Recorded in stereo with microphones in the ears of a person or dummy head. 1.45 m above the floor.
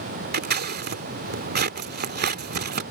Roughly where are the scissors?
Right.